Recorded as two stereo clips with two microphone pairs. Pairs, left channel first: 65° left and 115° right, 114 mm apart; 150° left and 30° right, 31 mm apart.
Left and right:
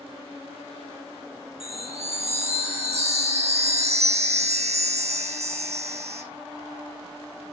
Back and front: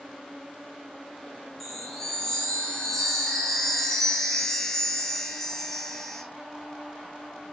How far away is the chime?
About 1.9 m.